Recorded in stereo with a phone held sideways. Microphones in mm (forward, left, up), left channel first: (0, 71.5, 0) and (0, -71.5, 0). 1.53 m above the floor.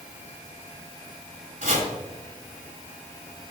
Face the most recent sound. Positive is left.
turn(degrees=-65)  # may be behind; listen again after turning